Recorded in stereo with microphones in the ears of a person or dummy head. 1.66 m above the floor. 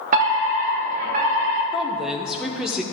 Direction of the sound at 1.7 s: Centre (ahead or behind).